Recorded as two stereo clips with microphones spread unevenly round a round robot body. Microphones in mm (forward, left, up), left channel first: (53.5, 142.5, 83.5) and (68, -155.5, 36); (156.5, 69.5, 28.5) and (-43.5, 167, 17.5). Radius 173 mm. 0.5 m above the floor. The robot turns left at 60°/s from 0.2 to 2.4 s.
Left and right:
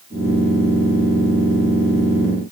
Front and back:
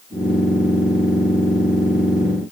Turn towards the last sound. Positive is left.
No sound to turn to.